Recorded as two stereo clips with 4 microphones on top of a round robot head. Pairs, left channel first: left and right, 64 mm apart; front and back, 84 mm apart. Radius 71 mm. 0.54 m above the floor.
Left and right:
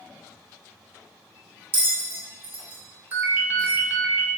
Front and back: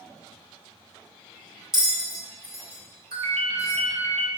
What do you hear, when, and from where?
1.7 s a bell: 105° right, 1.4 m
3.1 s a ringtone: 150° right, 0.9 m